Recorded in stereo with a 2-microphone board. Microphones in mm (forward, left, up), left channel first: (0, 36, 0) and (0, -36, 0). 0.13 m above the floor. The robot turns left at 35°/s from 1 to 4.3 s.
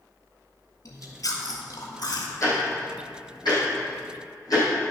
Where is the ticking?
45° left (ahead or behind), 4 m; by 4.7 s 65° left (ahead or behind), 4 m.